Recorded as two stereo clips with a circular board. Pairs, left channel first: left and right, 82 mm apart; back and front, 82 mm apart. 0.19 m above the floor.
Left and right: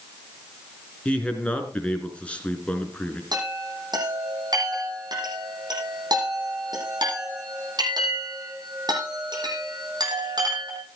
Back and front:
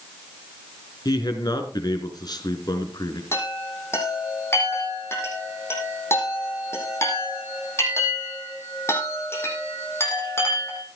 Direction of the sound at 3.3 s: 125° right.